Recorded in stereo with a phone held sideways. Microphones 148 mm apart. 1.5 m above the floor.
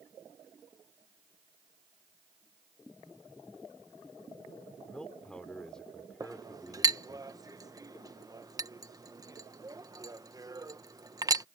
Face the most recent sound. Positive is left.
turn(degrees=-25)  # may be behind; listen again after turning